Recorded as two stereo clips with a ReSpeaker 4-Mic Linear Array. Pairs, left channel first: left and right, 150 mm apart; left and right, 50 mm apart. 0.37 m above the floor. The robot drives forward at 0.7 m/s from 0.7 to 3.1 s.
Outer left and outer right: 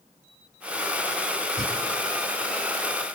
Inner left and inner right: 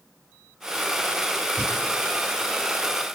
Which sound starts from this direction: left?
Breathing, at 1.6 s.